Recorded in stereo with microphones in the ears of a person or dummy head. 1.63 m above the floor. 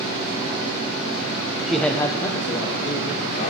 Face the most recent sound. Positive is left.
turn(degrees=40)  # may be behind; listen again after turning